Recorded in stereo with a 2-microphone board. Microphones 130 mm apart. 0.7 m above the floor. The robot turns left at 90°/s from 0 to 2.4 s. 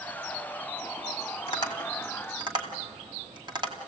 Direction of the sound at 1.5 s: 45° left (ahead or behind).